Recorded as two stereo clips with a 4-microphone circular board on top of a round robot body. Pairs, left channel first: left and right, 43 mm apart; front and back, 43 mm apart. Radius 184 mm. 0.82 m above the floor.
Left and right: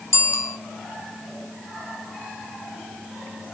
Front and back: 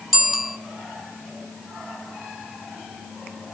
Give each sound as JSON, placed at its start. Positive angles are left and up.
{"t": 0.1, "sound": "a bicycle bell", "azimuth_deg": 90, "distance_m": 3.0}